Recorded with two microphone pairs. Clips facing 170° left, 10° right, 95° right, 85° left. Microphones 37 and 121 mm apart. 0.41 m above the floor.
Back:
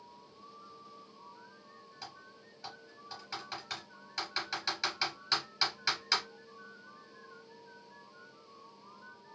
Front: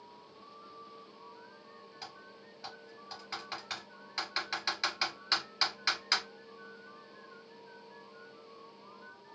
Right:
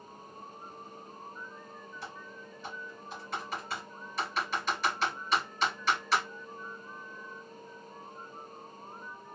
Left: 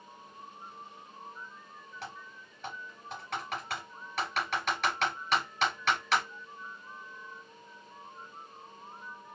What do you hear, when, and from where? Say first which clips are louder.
2.0 s typing on a keyboard: even, left 2 dB; 60° left, 3.5 m